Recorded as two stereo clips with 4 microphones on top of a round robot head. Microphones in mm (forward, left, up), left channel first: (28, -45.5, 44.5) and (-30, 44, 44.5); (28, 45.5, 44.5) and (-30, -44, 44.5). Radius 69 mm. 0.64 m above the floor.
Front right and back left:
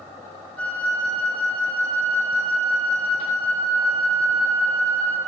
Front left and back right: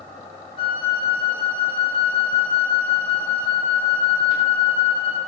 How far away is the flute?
About 1.4 m.